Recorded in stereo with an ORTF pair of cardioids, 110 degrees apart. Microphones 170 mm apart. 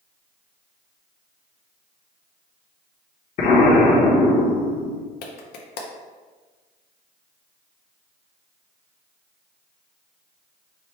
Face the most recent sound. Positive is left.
turn(degrees=70)